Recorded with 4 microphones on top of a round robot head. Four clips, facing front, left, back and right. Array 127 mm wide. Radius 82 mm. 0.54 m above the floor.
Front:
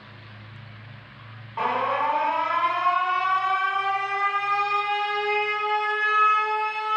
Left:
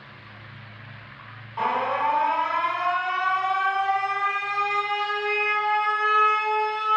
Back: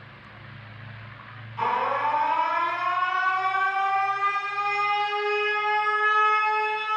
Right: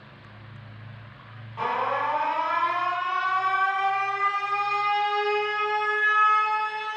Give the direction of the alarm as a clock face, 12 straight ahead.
11 o'clock.